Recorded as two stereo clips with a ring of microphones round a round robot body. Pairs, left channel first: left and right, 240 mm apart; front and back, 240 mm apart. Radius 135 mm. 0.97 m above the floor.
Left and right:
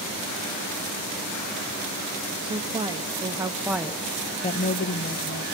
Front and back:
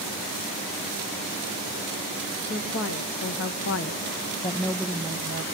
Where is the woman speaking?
20° right, 1.9 m; by 5.4 s 125° left, 1.0 m.